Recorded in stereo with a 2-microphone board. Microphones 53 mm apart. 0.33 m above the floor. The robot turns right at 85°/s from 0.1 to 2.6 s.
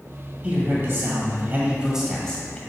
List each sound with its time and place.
0.4 s a man speaking: 145° right, 1.5 m; by 2.6 s 35° left, 1.5 m